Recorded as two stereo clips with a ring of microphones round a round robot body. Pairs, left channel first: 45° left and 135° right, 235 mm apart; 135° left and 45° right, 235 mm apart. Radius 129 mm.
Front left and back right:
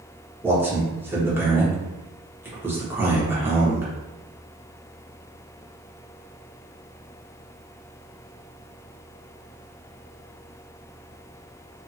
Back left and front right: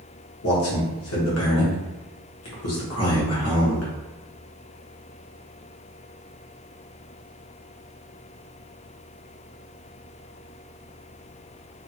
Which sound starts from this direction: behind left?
A man speaking, at 0.4 s.